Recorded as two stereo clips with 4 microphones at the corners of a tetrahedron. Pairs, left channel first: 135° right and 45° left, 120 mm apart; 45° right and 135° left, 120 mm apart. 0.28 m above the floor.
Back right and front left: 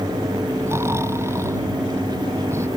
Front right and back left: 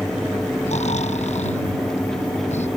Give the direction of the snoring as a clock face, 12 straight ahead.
1 o'clock.